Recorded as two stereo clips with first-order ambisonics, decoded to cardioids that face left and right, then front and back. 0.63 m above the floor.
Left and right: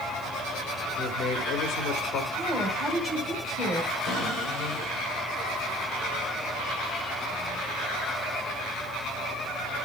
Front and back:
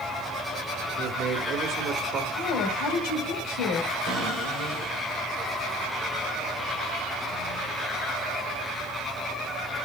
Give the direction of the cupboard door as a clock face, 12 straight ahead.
8 o'clock.